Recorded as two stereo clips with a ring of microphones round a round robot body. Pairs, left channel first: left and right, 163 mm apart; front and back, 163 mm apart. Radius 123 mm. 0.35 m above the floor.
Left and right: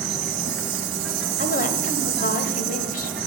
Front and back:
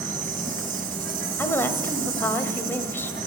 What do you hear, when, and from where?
0.0 s an insect: 130° right, 1.0 m
1.4 s a woman speaking: 75° left, 1.7 m